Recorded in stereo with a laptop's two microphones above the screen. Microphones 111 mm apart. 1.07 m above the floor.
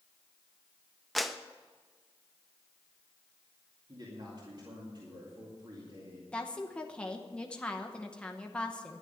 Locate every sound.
1.1 s a clap: centre (ahead or behind), 0.8 m
3.9 s a man speaking: 45° right (ahead or behind), 2.5 m
6.3 s a woman speaking: 10° left (ahead or behind), 0.9 m